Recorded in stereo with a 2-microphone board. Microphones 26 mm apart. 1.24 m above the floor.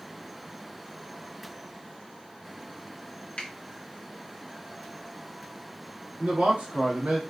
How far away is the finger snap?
About 1.1 m.